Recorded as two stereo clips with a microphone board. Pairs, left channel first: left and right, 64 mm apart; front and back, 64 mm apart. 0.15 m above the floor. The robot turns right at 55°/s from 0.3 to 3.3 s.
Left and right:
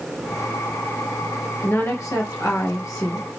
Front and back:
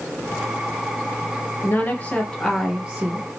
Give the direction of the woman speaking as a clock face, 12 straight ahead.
11 o'clock.